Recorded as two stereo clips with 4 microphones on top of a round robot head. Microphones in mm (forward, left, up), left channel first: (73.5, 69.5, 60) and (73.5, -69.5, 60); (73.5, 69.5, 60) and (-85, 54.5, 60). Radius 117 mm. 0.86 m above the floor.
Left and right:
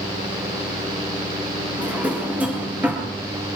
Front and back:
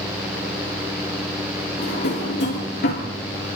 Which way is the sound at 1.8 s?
10° right.